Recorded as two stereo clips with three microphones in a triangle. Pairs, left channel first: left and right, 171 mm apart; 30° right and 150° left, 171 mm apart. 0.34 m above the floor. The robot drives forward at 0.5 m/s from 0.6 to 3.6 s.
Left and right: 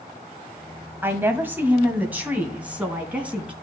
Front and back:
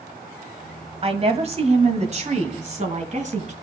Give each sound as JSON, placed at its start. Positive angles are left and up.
{"t": 1.0, "sound": "a woman speaking", "azimuth_deg": -165, "distance_m": 1.6}